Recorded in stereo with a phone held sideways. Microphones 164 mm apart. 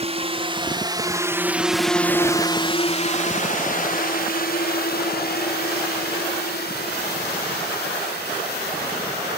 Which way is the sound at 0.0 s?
40° right (ahead or behind).